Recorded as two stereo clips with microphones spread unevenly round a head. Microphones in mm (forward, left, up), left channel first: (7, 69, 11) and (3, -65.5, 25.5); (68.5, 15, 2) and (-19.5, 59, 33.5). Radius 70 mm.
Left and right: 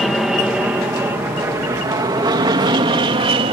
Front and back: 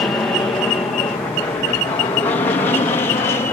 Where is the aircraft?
Straight ahead; by 3.5 s 55° right.